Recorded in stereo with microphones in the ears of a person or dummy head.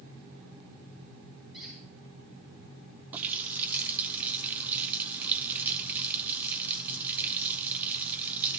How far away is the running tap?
About 0.6 m.